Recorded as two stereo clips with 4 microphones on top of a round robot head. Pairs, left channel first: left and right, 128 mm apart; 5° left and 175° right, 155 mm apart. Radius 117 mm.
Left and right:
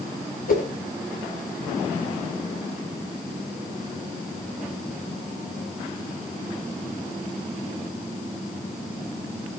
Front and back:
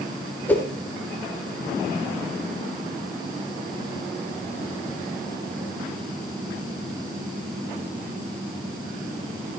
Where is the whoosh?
85° left, 3 m.